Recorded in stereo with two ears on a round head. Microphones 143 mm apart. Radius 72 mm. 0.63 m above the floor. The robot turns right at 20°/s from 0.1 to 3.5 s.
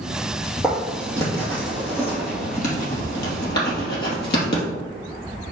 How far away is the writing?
About 3 m.